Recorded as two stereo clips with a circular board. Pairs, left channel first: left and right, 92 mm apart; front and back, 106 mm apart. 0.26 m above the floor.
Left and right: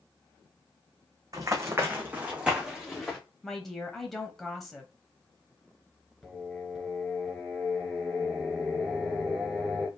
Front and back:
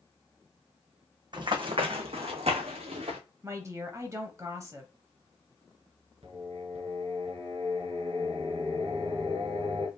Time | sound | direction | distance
1.3 | running footsteps | 135° right | 0.9 m
3.4 | a woman speaking | 175° left | 1.0 m
6.2 | singing | straight behind | 1.9 m